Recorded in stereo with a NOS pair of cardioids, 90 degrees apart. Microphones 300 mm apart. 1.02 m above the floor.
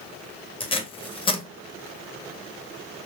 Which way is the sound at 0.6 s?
20° left.